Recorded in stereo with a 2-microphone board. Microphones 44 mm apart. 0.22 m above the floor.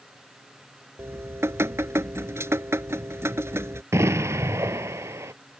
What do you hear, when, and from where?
1.0 s dripping: 70° right (ahead or behind)
3.9 s an explosion: 85° right